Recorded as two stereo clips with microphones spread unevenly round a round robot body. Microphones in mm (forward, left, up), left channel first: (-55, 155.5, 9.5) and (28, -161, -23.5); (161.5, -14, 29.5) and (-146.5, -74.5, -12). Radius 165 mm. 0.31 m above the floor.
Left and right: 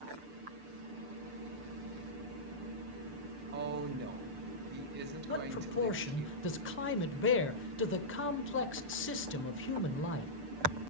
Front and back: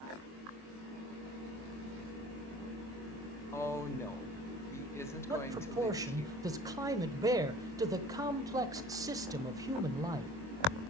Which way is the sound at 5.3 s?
135° left.